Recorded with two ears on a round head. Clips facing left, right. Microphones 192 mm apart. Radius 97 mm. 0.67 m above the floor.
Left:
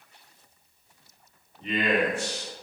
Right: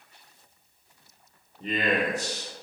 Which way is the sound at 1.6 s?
35° right (ahead or behind).